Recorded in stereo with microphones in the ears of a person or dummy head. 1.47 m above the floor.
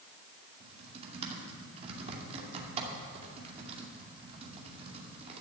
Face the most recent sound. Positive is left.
turn(degrees=-35)  # may be behind; listen again after turning